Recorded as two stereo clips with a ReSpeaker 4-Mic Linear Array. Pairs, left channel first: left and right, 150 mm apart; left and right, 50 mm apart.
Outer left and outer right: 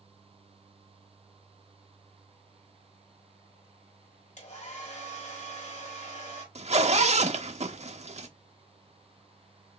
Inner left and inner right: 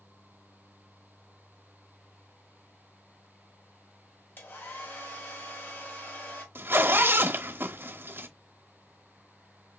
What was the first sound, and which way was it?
A hair dryer, 55° left (ahead or behind).